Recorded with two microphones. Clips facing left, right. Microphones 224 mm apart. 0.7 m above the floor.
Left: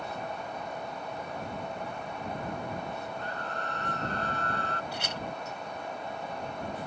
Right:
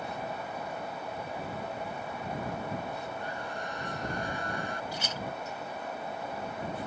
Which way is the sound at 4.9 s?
65° left (ahead or behind).